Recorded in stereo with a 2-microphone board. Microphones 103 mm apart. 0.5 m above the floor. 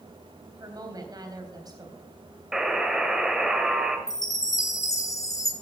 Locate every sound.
0.6 s a woman speaking: 40° right (ahead or behind), 3.5 m
2.5 s a buzzer: 5° right (ahead or behind), 1.5 m
4.1 s a chime: 35° left (ahead or behind), 1.6 m